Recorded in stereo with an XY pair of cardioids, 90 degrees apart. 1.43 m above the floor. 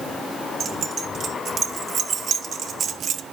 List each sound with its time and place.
0.6 s keys jangling: 60° right, 2.5 m; by 3.2 s 70° right, 1.0 m